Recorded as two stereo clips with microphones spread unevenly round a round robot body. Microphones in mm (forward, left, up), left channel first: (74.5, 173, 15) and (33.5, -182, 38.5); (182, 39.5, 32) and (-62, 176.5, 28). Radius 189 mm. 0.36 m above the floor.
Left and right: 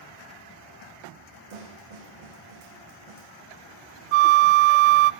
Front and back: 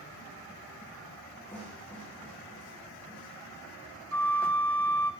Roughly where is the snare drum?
Behind right.